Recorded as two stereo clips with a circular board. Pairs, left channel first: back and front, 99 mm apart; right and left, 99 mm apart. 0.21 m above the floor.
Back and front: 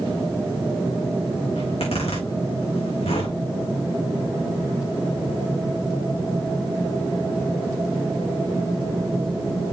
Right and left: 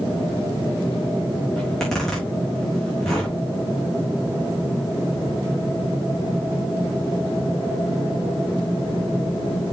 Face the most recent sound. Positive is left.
turn(degrees=-175)